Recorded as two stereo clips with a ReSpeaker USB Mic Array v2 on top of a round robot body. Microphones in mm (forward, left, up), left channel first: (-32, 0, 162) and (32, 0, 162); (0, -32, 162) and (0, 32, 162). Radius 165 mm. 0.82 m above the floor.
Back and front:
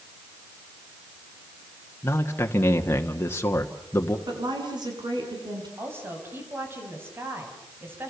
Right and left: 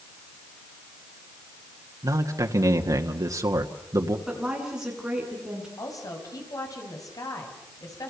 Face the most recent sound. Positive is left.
turn(degrees=-55)